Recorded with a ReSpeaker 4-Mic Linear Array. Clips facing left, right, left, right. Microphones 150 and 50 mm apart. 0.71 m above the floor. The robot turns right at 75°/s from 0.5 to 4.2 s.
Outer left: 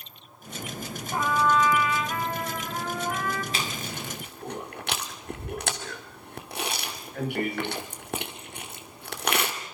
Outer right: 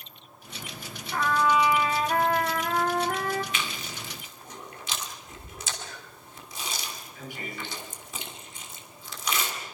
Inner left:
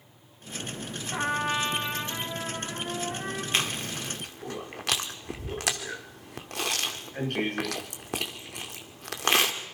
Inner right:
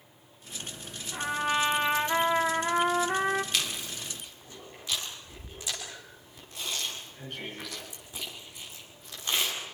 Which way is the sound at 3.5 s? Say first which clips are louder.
Outer left 3 dB, inner left 4 dB; 35° left (ahead or behind).